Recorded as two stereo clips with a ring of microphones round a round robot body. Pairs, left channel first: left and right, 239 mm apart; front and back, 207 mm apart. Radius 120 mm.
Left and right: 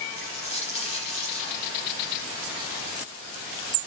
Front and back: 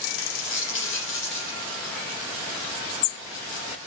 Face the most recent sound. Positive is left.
turn(degrees=25)